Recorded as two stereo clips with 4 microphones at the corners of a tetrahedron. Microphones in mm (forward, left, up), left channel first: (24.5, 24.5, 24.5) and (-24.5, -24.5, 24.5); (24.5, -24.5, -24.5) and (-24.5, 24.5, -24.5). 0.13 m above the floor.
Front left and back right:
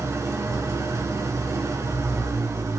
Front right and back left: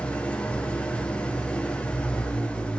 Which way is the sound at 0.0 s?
110° right.